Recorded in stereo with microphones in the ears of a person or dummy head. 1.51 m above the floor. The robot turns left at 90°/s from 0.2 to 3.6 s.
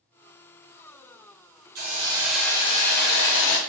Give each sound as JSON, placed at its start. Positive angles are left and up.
{"t": 1.8, "sound": "a hiss", "azimuth_deg": -125, "distance_m": 0.6}